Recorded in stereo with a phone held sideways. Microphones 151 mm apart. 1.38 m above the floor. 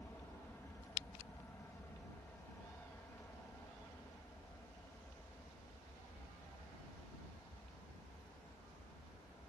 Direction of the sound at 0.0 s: 15° left (ahead or behind).